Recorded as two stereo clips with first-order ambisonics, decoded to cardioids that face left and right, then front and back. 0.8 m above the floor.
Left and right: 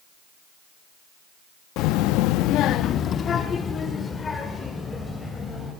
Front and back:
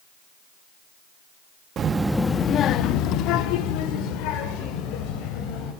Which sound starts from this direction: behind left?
A child speaking, at 1.8 s.